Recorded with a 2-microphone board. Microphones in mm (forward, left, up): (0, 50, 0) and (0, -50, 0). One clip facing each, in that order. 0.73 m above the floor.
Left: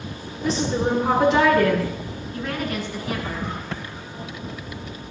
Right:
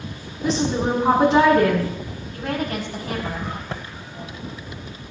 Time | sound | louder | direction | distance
0.4 | a woman speaking | right 1 dB | 30° right (ahead or behind) | 6 m
2.3 | a woman speaking | right 2 dB | 40° right (ahead or behind) | 6 m
3.7 | typing on a keyboard | even | 30° right (ahead or behind) | 1.2 m